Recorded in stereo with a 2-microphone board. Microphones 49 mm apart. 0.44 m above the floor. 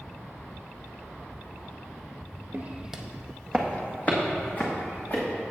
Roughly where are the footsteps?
Right.